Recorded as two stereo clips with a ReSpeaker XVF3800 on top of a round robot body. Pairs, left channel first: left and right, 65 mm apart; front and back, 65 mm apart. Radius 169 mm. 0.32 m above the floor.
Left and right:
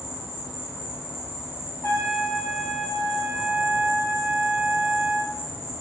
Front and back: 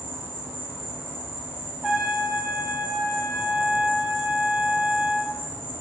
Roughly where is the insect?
Ahead left.